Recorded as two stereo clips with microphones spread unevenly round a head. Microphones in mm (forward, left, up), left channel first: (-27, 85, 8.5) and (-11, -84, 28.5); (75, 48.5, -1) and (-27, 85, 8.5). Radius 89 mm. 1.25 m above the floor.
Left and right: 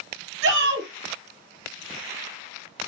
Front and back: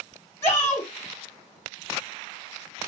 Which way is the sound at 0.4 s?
100° right.